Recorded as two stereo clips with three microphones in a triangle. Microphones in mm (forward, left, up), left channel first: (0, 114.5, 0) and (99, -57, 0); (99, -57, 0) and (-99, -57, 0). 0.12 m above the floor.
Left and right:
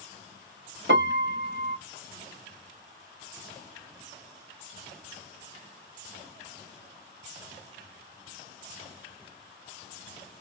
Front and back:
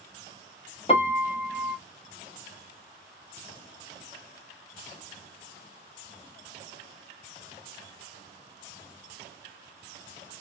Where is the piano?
60° right, 0.8 m.